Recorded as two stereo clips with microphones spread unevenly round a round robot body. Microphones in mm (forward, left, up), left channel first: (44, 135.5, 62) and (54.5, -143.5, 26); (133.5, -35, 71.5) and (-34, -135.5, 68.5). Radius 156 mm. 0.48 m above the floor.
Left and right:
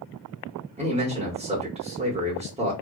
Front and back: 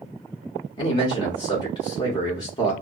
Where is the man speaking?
35° right, 1.1 m.